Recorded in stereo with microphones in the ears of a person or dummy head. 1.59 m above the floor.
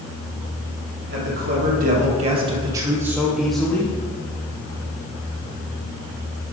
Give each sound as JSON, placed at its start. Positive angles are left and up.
{"t": 1.1, "sound": "a man speaking", "side_deg": -60, "distance_m": 2.0}